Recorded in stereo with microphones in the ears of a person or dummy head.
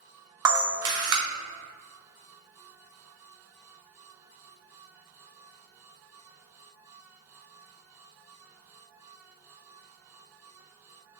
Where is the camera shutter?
20° right (ahead or behind), 0.8 m.